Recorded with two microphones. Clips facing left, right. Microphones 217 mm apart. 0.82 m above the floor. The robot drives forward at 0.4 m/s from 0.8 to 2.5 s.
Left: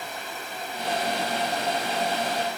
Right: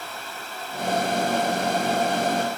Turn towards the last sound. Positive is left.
No sound to turn to.